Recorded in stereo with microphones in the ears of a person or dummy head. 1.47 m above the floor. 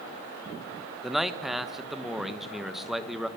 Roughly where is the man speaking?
Centre.